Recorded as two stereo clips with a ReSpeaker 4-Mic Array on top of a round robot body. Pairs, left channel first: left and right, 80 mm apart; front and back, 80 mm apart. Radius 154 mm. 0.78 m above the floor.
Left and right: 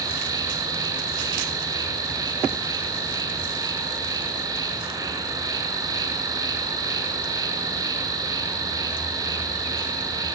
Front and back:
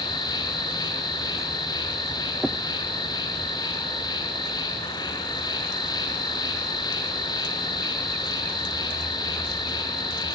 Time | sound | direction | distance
0.0 | an insect | 40° right | 0.9 m